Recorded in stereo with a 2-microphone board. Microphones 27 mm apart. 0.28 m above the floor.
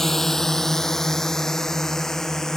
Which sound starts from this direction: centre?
A drone, at 0.0 s.